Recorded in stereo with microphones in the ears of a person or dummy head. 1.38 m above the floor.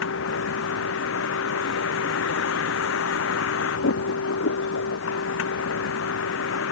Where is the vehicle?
80° left.